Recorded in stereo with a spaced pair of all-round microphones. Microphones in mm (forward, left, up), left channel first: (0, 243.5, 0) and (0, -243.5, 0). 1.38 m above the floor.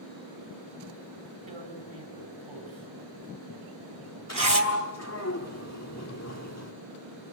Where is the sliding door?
30° left (ahead or behind), 1.9 m.